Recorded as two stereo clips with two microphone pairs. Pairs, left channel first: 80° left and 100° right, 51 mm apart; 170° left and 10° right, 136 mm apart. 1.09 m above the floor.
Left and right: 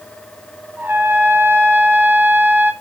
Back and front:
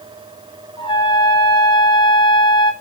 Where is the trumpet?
135° right, 1.2 m.